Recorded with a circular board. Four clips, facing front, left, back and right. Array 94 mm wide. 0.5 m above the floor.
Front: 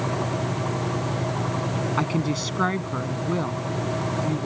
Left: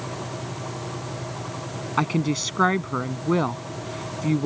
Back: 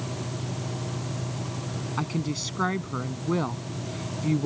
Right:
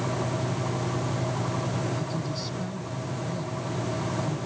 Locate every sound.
2.0 s a woman speaking: 70° left; by 4.5 s 105° left